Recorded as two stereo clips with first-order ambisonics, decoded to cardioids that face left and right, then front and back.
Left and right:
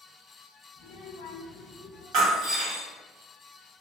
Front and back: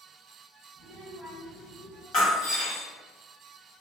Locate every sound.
0.8 s a child speaking: 140° left, 0.8 m; by 2.0 s 30° left, 1.1 m
2.1 s breaking glass: 50° right, 1.2 m